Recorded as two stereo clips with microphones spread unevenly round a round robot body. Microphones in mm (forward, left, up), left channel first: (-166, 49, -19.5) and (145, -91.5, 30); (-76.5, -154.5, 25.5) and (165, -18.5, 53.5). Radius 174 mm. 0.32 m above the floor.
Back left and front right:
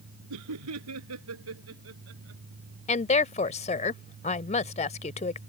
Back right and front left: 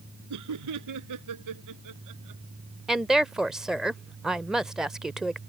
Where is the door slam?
No door slam in this recording.